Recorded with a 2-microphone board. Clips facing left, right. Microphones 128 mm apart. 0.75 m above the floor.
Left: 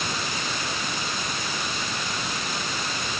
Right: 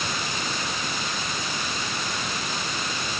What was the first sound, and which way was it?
Only background noise.